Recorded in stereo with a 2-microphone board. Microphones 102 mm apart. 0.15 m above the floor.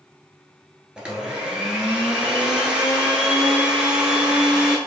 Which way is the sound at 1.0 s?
10° right (ahead or behind).